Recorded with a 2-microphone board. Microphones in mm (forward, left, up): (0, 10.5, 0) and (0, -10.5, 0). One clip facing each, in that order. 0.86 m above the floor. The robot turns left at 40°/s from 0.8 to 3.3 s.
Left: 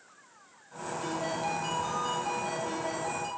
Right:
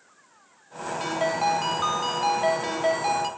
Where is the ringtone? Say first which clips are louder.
Right 8 dB; 45° right, 2.5 m; by 3.3 s 135° right, 2.5 m.